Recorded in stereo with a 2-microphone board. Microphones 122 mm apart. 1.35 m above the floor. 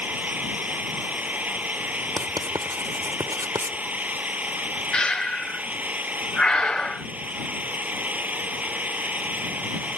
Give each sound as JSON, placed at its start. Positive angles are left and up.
{"t": 0.0, "sound": "an engine running", "side_deg": -10}
{"t": 2.2, "sound": "writing", "side_deg": -30}
{"t": 4.9, "sound": "breathing", "side_deg": 5}